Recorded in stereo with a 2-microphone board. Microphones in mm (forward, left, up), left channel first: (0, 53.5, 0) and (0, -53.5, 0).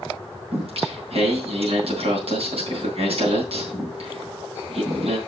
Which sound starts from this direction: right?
Singing, at 0.5 s.